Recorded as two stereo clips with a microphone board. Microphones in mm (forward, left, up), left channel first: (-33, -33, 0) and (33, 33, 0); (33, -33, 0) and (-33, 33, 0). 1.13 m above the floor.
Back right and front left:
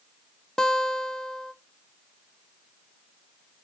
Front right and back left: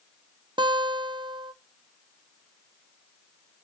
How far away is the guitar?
About 0.6 m.